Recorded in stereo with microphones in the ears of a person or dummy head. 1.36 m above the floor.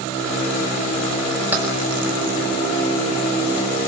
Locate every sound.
1.5 s keys jangling: 10° right (ahead or behind), 5.5 m